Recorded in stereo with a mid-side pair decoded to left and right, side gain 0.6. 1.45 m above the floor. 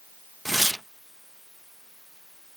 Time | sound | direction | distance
0.5 | tearing paper | 5° right | ?